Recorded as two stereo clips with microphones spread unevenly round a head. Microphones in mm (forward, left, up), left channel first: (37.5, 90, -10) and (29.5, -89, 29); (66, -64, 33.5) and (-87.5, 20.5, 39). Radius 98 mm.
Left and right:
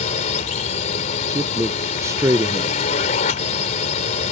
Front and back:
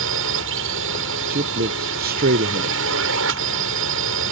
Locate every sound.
0.0 s a drone: 145° left
1.3 s a man speaking: 170° right